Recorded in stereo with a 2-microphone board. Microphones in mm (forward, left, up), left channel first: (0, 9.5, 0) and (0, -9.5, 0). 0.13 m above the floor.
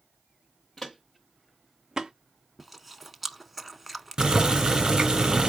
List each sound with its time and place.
0.8 s footsteps: 15° left (ahead or behind), 1.0 m; by 2.1 s 30° right (ahead or behind), 0.8 m
2.6 s chewing: centre (ahead or behind), 0.7 m
4.2 s boiling: 30° right (ahead or behind), 1.7 m